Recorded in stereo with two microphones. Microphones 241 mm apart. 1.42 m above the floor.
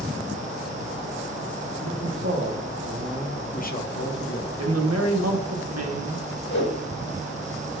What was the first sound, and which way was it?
A man speaking, 80° right.